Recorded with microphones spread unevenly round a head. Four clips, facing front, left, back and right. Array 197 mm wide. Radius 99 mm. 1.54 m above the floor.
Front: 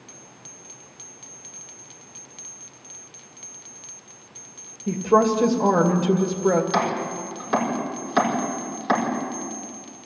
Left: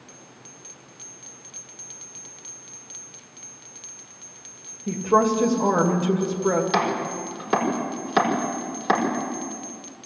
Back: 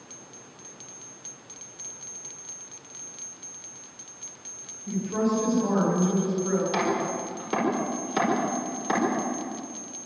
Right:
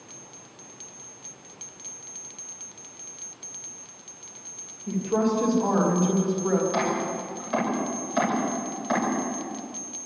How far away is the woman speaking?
About 2.5 m.